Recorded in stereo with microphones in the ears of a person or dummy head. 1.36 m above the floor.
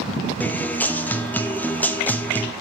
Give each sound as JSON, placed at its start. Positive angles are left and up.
{"t": 0.4, "sound": "a guitar", "side_deg": 5, "distance_m": 0.5}